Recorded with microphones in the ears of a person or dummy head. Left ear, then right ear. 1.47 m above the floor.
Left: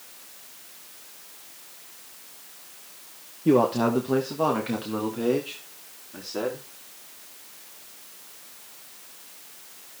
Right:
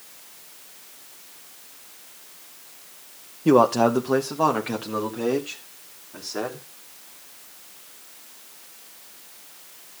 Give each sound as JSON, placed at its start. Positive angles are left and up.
{"t": 3.5, "sound": "a man speaking", "side_deg": -50, "distance_m": 0.9}